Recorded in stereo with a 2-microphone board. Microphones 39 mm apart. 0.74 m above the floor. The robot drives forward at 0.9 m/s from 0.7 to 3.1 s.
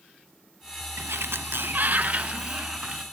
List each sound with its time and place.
1.0 s a sliding door: 80° right, 0.8 m; by 3.0 s 25° right (ahead or behind), 1.9 m